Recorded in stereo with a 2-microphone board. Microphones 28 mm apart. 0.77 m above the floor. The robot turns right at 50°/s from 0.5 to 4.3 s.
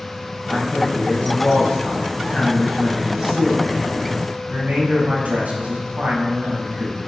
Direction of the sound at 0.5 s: 70° left.